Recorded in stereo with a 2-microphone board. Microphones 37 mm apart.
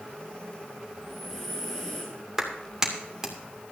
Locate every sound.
0.9 s breathing: 5° left (ahead or behind), 5.5 m
2.4 s a clap: 10° right (ahead or behind), 2 m